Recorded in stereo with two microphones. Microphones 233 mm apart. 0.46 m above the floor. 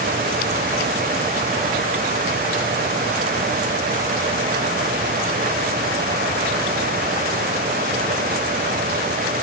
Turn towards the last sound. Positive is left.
No sound to turn to.